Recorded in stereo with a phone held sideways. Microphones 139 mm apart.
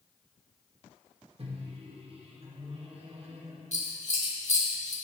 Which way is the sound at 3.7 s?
55° left (ahead or behind).